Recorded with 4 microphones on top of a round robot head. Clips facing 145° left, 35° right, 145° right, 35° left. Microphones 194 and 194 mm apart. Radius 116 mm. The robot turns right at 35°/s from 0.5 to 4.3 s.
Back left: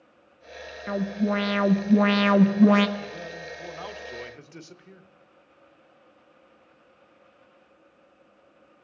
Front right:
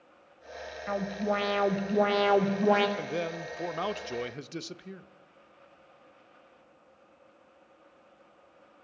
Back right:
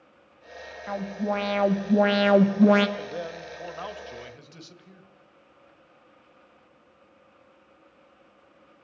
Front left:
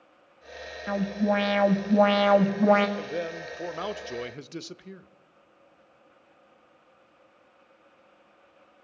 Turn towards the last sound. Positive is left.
turn(degrees=10)